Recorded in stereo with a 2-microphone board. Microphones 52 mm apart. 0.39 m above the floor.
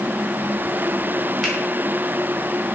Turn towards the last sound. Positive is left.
turn(degrees=10)  # may be behind; listen again after turning